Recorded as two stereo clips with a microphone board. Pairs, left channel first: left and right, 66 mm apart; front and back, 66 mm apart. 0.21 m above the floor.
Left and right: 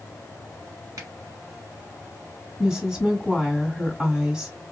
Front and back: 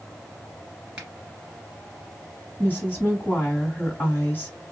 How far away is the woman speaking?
About 1.7 m.